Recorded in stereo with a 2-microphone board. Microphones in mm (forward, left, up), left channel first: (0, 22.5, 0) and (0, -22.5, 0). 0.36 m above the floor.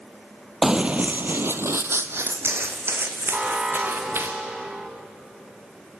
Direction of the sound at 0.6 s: 10° right (ahead or behind).